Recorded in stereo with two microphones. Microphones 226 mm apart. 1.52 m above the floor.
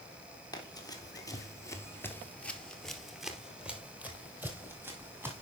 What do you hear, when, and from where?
0.5 s running footsteps: 15° left (ahead or behind), 2 m; by 5.4 s 10° right (ahead or behind), 3.5 m